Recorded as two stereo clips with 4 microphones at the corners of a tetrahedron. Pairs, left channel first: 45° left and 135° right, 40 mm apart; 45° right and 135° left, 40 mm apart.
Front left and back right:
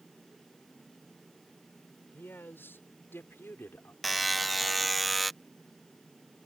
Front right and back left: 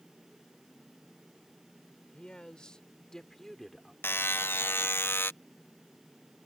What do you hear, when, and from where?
2.1 s a man speaking: 20° left; by 3.9 s 40° left
4.0 s a buzzer: 45° right